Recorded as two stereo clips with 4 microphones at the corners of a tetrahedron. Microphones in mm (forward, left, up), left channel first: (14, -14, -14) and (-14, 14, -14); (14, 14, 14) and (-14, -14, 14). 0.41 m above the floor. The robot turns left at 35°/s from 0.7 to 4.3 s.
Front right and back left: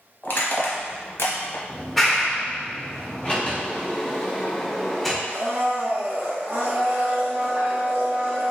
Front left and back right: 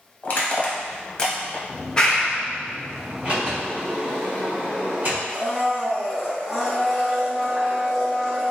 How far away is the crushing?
About 0.6 m.